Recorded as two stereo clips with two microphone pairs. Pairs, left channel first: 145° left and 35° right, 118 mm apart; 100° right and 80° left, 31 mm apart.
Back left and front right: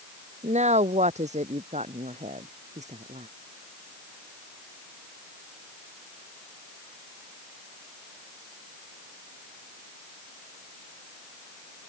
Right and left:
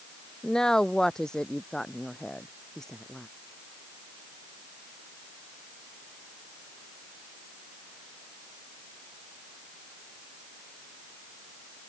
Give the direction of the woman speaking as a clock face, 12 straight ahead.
1 o'clock.